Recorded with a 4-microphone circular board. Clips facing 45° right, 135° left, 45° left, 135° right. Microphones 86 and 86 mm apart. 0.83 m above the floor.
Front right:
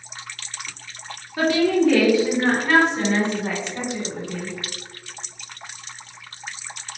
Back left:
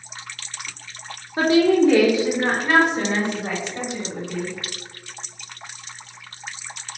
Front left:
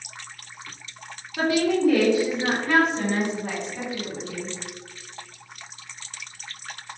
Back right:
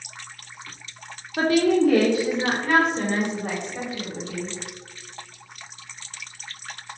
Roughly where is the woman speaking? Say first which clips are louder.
Back left 3 dB, back right 3 dB; behind.